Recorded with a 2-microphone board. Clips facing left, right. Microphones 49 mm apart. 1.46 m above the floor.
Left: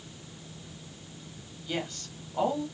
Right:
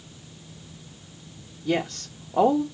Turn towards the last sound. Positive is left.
turn(degrees=-75)  # may be behind; listen again after turning